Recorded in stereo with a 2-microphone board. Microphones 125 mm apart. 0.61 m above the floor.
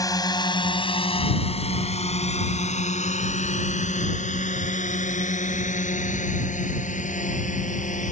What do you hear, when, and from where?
0.0 s a drone: 30° left (ahead or behind); by 8.1 s 85° left